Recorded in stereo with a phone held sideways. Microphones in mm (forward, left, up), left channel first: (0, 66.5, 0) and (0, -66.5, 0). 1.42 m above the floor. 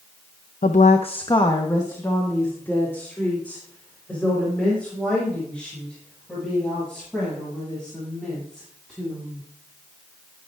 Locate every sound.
0.6 s a woman speaking: 80° left, 0.6 m; by 9.4 s 5° left (ahead or behind), 10 m